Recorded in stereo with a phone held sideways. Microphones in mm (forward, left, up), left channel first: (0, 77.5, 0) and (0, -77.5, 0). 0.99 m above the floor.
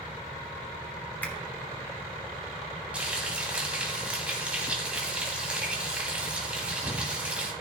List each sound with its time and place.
1.2 s a finger snap: 10° left (ahead or behind), 1.8 m
2.9 s frying: 5° right (ahead or behind), 2.5 m